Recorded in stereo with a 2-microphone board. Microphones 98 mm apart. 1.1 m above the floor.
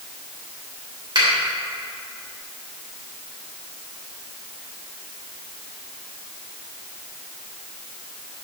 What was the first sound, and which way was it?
A finger snap, 50° right (ahead or behind).